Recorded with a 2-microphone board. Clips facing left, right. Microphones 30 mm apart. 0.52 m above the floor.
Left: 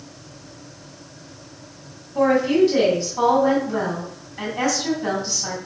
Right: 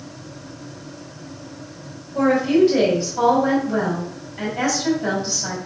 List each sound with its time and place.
2.1 s a woman speaking: 15° right (ahead or behind), 3.5 m